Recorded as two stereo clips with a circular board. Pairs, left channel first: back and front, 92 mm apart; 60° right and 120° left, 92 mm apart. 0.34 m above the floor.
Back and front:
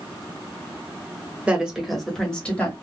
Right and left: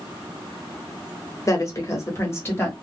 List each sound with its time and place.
1.5 s a woman speaking: 65° right, 1.0 m; by 2.7 s 115° right, 1.2 m